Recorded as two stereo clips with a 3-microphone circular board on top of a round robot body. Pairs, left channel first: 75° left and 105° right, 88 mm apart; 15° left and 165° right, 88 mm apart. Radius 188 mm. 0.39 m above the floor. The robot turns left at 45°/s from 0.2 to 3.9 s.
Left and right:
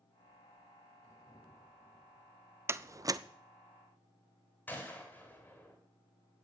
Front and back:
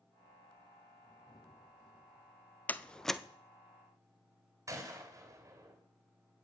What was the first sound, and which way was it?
A door slam, 50° right.